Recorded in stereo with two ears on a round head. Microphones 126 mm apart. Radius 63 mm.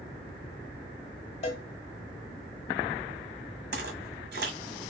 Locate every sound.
1.4 s a cowbell: 50° left (ahead or behind), 1.3 m
3.7 s footsteps: 75° right (ahead or behind), 1.8 m